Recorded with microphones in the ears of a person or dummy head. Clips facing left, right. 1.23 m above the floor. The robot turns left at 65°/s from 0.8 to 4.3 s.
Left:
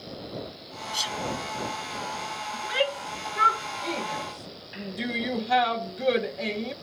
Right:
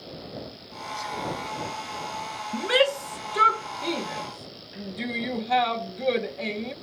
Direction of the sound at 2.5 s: 60° right (ahead or behind).